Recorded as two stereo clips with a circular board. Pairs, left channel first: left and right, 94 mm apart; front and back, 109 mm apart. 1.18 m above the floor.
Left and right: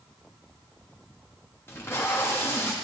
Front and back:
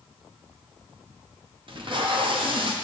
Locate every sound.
1.7 s tape being pulled: 150° left, 0.9 m